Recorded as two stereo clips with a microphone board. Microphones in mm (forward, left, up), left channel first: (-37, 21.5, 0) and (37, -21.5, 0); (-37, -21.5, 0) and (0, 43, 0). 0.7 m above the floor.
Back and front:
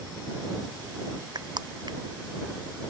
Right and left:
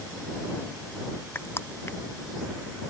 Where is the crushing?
65° right.